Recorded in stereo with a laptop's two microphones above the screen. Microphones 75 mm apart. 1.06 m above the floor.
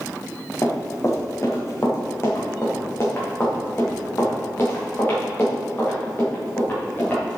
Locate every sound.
0.6 s running footsteps: 45° left (ahead or behind), 2.5 m; by 7.4 s 25° left (ahead or behind), 5.5 m